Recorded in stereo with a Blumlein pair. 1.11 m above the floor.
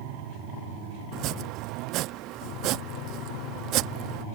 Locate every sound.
1.1 s chopping: 40° right